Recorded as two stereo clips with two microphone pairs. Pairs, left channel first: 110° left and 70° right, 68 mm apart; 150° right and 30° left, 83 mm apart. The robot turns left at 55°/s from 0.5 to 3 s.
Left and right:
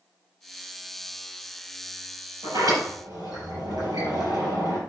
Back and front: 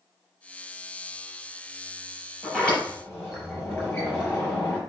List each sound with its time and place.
2.4 s a sliding door: 55° right, 4.5 m; by 4.8 s 85° right, 4.5 m